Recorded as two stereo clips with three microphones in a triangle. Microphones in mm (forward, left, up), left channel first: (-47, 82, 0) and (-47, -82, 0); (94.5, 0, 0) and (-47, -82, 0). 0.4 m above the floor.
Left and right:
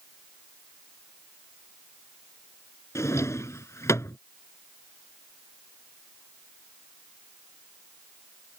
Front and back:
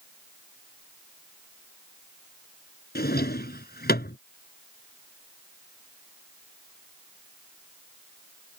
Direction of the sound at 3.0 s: 15° left.